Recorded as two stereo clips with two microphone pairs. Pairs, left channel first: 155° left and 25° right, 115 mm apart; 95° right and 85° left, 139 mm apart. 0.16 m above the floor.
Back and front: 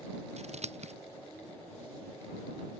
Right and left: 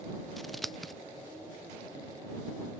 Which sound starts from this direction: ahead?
Scissors, at 0.4 s.